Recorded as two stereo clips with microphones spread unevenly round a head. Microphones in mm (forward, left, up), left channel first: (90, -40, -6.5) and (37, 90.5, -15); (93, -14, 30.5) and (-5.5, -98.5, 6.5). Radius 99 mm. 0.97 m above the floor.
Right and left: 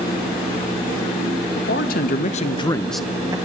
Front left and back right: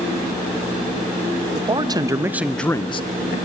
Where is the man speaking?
95° right, 1.4 m; by 3.4 s 55° left, 0.8 m.